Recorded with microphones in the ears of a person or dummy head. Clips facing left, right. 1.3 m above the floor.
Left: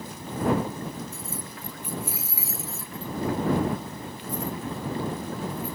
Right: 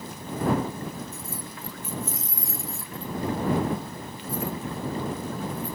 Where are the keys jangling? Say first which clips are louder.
Even; 30° left (ahead or behind); by 5.8 s 20° right (ahead or behind).